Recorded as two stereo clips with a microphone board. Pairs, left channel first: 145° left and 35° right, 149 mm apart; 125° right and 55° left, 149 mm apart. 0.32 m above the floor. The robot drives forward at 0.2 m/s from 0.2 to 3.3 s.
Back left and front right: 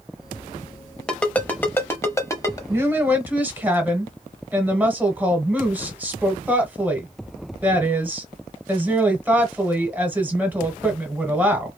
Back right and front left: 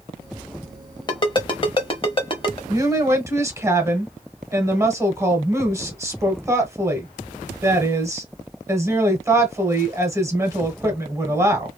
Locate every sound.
1.1 s a ringtone: 135° right, 0.6 m; by 2.6 s 155° right, 0.7 m
2.7 s a woman speaking: 20° left, 1.0 m; by 11.8 s 25° left, 0.9 m